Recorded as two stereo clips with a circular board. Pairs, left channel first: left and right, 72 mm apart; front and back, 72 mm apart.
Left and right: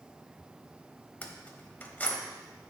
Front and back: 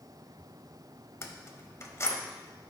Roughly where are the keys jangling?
Ahead left.